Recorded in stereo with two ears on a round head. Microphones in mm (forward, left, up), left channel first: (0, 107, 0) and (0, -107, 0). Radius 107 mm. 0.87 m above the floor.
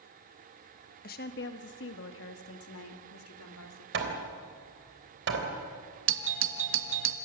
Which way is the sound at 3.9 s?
50° right (ahead or behind).